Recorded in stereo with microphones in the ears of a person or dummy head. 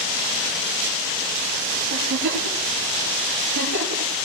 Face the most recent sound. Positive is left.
turn(degrees=-55)  # may be behind; listen again after turning